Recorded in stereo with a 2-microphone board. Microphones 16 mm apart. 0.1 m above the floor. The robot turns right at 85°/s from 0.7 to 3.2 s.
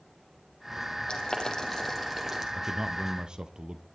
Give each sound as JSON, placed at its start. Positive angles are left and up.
{"t": 1.1, "sound": "boiling", "side_deg": 65, "distance_m": 4.0}
{"t": 2.5, "sound": "a man speaking", "azimuth_deg": -140, "distance_m": 2.0}